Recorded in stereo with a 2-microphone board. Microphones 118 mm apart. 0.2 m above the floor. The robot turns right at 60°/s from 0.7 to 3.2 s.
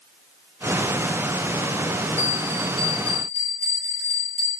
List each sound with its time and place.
2.2 s a bell: 115° left, 3 m; by 4.5 s straight behind, 3 m